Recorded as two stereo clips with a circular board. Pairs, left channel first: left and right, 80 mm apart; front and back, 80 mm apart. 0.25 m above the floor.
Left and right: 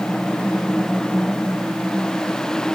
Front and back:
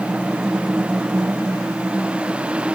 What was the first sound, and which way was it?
Only background noise.